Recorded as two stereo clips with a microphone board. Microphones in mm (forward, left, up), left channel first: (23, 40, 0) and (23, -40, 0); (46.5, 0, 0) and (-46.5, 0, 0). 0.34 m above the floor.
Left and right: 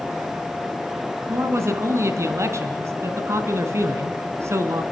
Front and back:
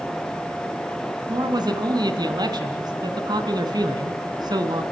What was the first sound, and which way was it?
A man speaking, 140° right.